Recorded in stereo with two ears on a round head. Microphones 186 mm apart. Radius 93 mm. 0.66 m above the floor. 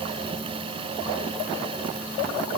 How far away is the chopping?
No chopping in this recording.